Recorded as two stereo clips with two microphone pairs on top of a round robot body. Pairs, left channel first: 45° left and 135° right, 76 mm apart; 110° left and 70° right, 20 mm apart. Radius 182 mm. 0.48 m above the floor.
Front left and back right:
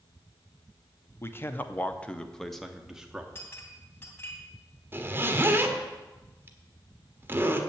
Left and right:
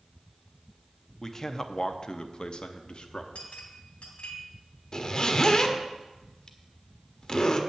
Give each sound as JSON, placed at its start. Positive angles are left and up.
{"t": 1.2, "sound": "a man speaking", "azimuth_deg": 45, "distance_m": 1.1}
{"t": 3.4, "sound": "a clink", "azimuth_deg": 95, "distance_m": 2.5}
{"t": 4.9, "sound": "a zipper", "azimuth_deg": 160, "distance_m": 1.4}